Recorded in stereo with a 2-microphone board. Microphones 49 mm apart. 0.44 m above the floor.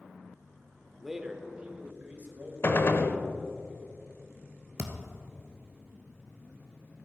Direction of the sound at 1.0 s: 5° right (ahead or behind).